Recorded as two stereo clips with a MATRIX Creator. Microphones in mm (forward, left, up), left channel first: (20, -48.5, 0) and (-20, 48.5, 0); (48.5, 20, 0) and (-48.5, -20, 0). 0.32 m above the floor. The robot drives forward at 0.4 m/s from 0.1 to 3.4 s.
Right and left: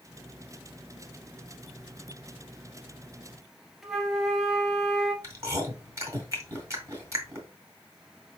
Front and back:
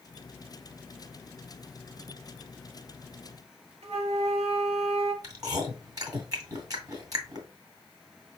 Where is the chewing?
160° left, 1.7 m.